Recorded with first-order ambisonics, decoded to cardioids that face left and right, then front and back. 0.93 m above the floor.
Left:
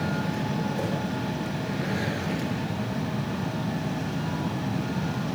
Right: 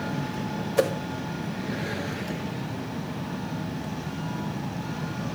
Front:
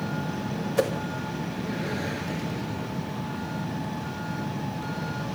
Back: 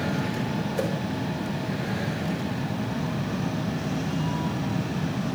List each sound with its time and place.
0.8 s a whoosh: 65° right, 1.4 m